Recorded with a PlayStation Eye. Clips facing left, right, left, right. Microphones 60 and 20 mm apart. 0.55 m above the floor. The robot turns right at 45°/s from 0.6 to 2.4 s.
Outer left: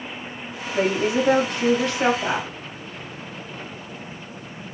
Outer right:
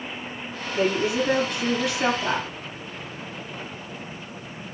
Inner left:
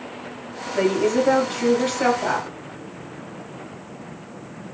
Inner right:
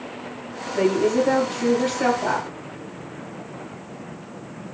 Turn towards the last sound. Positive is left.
turn(degrees=160)